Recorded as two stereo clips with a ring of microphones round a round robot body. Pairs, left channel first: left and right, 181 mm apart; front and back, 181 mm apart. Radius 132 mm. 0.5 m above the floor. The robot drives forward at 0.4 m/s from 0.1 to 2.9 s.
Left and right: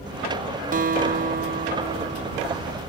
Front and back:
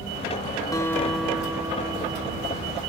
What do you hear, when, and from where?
0.7 s a guitar: 70° right; by 2.8 s 140° right